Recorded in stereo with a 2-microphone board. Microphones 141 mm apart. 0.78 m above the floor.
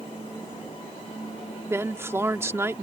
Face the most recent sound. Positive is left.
turn(degrees=-20)  # may be behind; listen again after turning